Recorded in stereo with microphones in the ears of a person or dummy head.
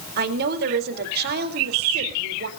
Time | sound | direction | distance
0.2 | a woman speaking | 60° right (ahead or behind) | 3.5 m